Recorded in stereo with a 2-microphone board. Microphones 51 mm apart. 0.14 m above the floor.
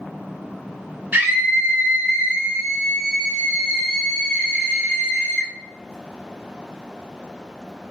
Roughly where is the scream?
Right.